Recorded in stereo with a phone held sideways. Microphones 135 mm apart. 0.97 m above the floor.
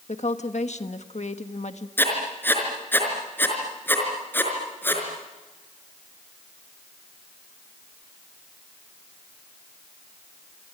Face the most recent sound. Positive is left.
turn(degrees=15)  # may be behind; listen again after turning